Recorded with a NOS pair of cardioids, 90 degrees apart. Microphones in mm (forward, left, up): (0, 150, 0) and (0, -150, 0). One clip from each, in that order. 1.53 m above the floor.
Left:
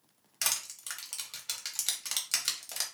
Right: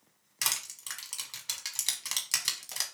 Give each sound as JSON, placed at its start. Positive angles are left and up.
{"t": 0.4, "sound": "crushing", "azimuth_deg": 0, "distance_m": 1.0}